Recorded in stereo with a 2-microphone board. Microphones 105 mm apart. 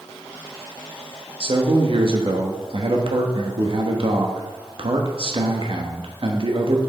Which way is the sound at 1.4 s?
60° right (ahead or behind).